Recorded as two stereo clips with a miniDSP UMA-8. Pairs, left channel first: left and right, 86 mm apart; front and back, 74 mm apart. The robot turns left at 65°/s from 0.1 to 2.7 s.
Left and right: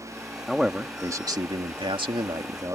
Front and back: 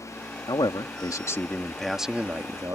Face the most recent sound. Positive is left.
turn(degrees=-145)